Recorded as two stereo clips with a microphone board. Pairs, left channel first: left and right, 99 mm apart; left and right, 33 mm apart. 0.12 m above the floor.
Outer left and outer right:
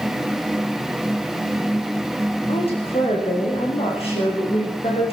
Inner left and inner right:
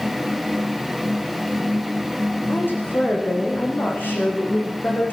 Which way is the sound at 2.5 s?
80° left.